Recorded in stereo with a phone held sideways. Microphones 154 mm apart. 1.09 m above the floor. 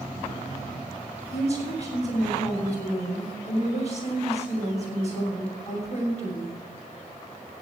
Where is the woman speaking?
50° left (ahead or behind), 6 m.